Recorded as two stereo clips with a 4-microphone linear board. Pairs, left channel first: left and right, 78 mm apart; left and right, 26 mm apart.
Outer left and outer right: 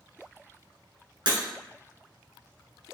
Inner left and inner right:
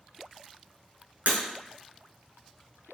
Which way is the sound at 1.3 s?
75° right (ahead or behind).